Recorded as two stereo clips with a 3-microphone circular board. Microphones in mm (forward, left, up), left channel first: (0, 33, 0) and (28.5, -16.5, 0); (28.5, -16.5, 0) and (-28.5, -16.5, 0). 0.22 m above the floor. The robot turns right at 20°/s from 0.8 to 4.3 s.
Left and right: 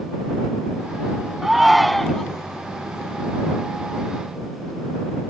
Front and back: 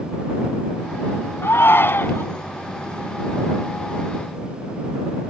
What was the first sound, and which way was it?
A shout, 20° left.